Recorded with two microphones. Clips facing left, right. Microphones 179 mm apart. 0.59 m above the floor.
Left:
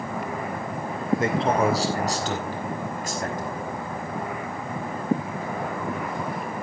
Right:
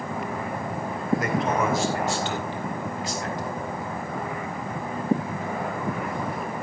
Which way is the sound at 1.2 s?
25° left (ahead or behind).